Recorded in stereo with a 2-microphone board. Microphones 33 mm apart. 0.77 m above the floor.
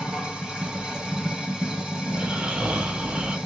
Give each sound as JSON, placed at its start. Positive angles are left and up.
{"t": 0.0, "sound": "running water", "side_deg": -20, "distance_m": 1.9}
{"t": 2.1, "sound": "snoring", "side_deg": -40, "distance_m": 1.0}